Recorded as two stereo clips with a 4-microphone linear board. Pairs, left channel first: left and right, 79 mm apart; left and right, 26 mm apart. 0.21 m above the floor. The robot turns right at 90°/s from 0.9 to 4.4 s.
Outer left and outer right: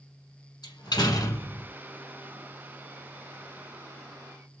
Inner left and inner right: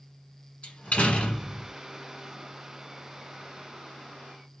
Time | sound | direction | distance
0.6 | a door slam | 90° left | 1.3 m